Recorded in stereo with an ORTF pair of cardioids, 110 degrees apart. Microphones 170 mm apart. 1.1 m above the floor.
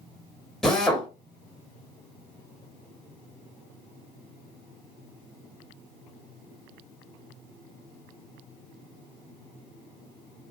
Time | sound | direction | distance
0.6 | a drill | 5° left | 1.2 m